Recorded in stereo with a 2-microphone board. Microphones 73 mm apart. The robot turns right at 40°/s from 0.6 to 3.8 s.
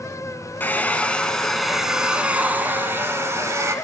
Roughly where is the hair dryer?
Behind left.